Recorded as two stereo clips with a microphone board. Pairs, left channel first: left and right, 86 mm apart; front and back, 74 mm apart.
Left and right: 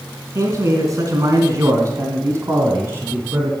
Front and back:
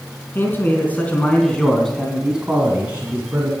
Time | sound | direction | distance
0.3 | a man speaking | 50° right | 2.5 m